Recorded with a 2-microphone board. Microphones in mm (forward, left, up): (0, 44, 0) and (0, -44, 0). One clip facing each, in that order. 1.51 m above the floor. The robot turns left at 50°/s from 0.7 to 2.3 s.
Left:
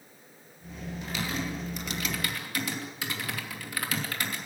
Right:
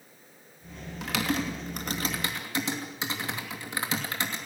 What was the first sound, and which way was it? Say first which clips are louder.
Typing on a keyboard: right 5 dB; 85° right.